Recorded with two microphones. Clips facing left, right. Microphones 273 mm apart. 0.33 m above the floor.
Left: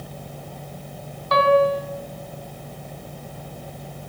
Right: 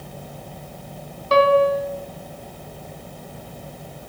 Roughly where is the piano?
Right.